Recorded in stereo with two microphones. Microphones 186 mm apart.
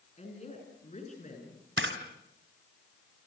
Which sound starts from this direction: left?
A woman speaking, at 0.2 s.